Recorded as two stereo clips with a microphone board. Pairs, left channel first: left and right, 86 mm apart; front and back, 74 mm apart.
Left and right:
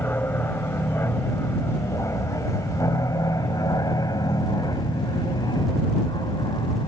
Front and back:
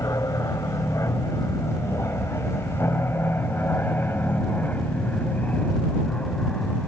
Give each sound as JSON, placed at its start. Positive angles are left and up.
{"t": 0.0, "sound": "an aircraft", "azimuth_deg": 30}